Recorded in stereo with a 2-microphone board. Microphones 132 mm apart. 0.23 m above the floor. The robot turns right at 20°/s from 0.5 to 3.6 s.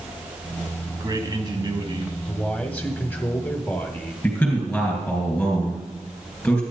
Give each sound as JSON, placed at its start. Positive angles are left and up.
{"t": 0.9, "sound": "a man speaking", "side_deg": -25, "distance_m": 1.7}
{"t": 2.3, "sound": "a man speaking", "side_deg": 10, "distance_m": 0.9}
{"t": 4.2, "sound": "a man speaking", "side_deg": 10, "distance_m": 3.5}